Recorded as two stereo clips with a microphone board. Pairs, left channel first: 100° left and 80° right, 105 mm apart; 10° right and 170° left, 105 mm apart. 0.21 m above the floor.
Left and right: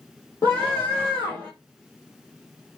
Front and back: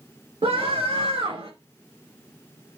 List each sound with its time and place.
0.4 s a scream: 165° left, 3.5 m